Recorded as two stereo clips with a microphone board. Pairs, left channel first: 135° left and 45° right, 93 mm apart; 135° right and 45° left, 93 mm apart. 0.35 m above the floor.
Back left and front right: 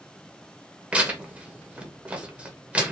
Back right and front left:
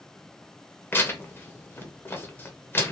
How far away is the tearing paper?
About 0.6 m.